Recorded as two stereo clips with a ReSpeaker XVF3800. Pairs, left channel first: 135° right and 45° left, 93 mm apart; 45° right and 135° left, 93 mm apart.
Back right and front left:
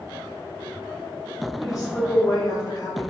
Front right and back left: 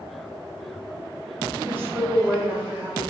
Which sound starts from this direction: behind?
A woman speaking, at 1.6 s.